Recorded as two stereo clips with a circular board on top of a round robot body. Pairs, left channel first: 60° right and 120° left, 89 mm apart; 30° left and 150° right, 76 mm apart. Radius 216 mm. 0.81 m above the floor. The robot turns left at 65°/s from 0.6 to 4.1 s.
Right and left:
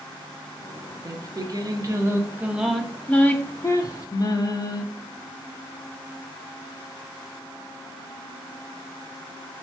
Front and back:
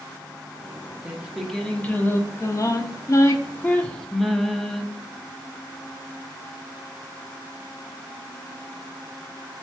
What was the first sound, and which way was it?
Singing, 145° left.